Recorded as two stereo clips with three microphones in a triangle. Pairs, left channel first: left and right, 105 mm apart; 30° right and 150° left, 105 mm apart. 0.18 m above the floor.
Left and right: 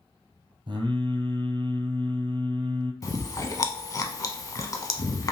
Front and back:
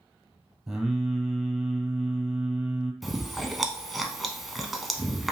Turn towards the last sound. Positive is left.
turn(degrees=60)